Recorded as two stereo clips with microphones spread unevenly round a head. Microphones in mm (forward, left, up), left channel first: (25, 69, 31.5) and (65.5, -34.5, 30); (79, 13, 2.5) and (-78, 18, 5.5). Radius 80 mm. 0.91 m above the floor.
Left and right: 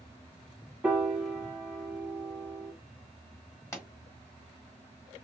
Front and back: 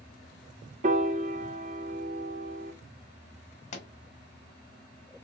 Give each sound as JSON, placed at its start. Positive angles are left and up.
{"t": 0.8, "sound": "a piano", "azimuth_deg": -150, "distance_m": 0.6}
{"t": 3.7, "sound": "a pop", "azimuth_deg": 45, "distance_m": 1.9}